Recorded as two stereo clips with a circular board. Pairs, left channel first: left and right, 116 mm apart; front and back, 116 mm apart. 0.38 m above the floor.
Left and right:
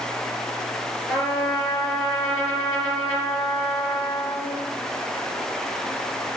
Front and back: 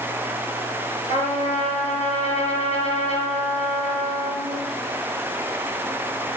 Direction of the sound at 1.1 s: Straight ahead.